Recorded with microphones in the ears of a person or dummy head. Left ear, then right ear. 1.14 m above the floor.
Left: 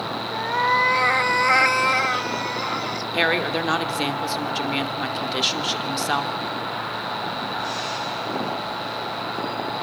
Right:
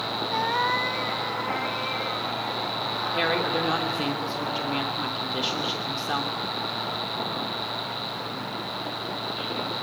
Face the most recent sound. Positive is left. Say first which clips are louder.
# left 5 dB
turn(degrees=20)  # may be behind; listen again after turning